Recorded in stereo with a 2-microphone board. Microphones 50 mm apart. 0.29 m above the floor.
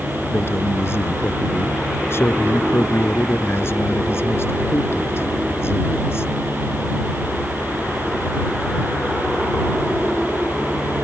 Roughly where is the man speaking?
Left.